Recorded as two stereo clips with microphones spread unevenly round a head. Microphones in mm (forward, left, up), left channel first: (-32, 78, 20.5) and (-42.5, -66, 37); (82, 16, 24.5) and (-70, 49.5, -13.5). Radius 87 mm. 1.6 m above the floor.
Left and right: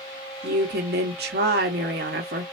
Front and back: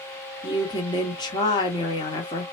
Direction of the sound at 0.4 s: 70° right.